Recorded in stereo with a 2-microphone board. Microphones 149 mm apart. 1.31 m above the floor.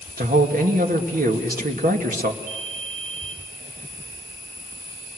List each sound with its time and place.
0.2 s a man speaking: 75° right (ahead or behind), 2.5 m
2.4 s a ringtone: 25° left (ahead or behind), 4 m